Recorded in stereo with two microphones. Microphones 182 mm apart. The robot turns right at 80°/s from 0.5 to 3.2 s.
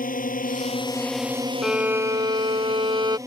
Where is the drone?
125° left; by 3.3 s 20° right.